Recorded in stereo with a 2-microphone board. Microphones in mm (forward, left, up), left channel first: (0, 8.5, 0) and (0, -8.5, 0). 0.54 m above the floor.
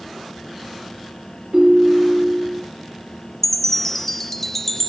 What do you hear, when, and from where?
1.5 s a ringtone: 55° right (ahead or behind), 5 m
3.4 s a chime: 15° left (ahead or behind), 1.4 m